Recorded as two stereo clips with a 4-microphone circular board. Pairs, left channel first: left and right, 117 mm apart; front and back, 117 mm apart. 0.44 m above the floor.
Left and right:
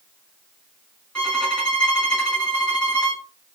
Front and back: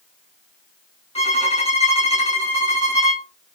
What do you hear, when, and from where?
1.1 s a violin: 10° left, 2 m